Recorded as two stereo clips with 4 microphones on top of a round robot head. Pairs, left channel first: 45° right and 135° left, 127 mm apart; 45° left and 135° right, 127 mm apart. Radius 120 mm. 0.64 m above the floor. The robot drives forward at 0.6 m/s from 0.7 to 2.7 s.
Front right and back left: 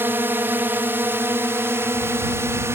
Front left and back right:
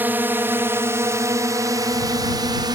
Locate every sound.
0.0 s a drone: 175° left; by 2.8 s 170° right